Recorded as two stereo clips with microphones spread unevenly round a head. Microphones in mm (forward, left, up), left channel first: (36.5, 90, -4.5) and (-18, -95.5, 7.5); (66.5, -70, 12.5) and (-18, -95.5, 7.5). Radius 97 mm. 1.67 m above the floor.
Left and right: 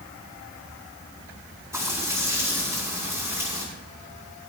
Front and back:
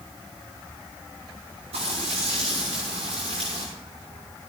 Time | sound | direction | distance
1.7 | frying | 175° left | 6.5 m